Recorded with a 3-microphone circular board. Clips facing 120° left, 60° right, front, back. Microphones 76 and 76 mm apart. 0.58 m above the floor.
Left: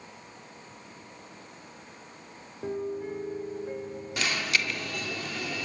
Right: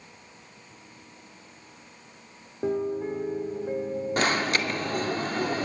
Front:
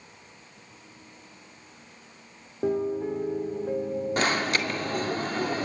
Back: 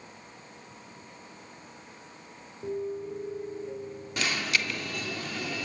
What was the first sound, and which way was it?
A piano, 5° left.